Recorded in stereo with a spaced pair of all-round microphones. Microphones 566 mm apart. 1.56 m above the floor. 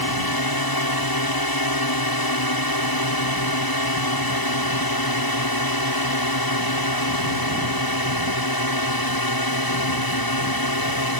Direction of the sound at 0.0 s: 40° left (ahead or behind).